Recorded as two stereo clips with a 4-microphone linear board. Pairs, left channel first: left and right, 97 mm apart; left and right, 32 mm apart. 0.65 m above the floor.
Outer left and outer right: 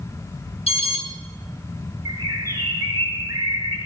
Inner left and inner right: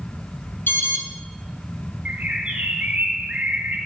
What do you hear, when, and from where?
0.7 s an alarm: 85° left, 7.5 m
2.0 s a bird: 35° right (ahead or behind), 5 m